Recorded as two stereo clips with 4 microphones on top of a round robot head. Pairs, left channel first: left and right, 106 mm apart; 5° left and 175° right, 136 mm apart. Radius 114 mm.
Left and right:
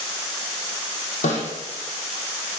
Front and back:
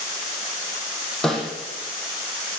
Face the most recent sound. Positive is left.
turn(degrees=90)